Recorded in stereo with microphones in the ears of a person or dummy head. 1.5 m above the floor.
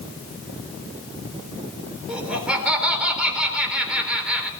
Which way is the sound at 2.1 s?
5° right (ahead or behind).